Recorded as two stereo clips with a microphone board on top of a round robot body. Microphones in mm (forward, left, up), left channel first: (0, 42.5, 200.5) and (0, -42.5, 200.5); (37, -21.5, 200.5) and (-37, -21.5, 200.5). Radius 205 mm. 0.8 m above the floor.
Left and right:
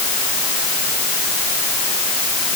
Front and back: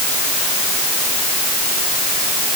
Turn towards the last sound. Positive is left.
No sound to turn to.